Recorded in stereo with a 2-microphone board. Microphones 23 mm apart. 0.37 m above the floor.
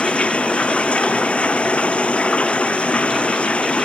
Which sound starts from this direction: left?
Running water, at 0.0 s.